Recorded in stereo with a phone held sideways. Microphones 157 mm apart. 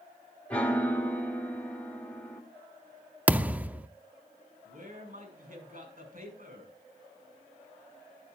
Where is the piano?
10° left (ahead or behind), 1.4 m.